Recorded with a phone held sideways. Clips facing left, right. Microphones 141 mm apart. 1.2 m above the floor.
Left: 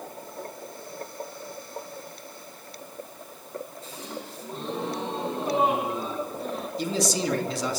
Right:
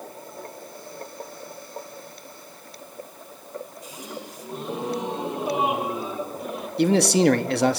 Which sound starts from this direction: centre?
A gasp, at 3.8 s.